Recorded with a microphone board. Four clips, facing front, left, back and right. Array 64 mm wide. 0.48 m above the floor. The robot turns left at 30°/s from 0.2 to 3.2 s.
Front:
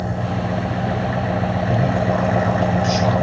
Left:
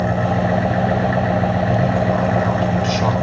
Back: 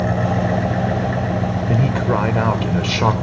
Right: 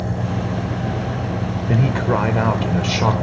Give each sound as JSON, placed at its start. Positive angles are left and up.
{"t": 0.0, "sound": "an engine running", "azimuth_deg": 120, "distance_m": 1.8}
{"t": 1.7, "sound": "a man speaking", "azimuth_deg": -125, "distance_m": 1.5}